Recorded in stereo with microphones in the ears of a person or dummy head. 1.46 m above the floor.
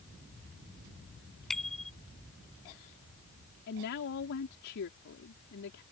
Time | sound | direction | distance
1.5 | a bicycle bell | 5° left (ahead or behind) | ?
3.7 | a woman speaking | 60° left (ahead or behind) | ?